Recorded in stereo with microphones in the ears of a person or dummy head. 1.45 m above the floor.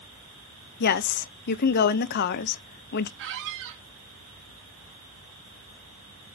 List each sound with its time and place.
0.8 s a woman speaking: 55° left (ahead or behind), 0.7 m
3.2 s a squeak: 60° right (ahead or behind), 1.4 m